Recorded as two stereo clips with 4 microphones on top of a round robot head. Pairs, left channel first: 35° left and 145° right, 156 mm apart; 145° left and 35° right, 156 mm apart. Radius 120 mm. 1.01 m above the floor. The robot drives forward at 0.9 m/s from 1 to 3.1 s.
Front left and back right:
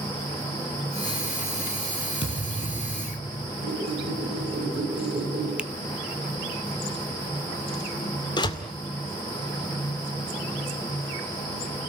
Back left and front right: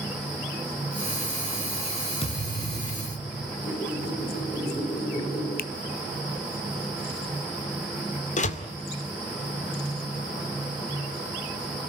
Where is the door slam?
100° left, 2 m.